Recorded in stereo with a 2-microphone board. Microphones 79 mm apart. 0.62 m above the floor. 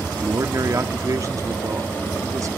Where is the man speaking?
45° right (ahead or behind), 0.9 m.